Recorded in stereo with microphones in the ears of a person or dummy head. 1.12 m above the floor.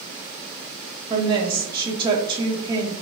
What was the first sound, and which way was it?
A woman speaking, 25° right (ahead or behind).